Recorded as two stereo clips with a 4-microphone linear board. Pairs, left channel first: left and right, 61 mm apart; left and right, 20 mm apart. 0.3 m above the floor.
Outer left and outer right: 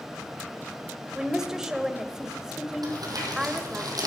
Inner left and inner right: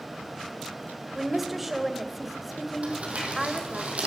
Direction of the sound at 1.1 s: 10° right (ahead or behind).